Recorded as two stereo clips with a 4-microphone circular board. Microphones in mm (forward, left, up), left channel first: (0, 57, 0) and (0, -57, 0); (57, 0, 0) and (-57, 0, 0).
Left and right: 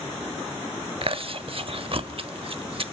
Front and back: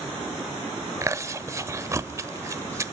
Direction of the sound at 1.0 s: 120° right.